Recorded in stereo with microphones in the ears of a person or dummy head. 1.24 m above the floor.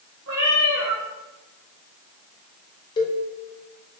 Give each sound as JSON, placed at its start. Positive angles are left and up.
{"t": 0.3, "sound": "a cat meowing", "side_deg": -20, "distance_m": 0.6}
{"t": 3.0, "sound": "a cowbell", "side_deg": 25, "distance_m": 0.8}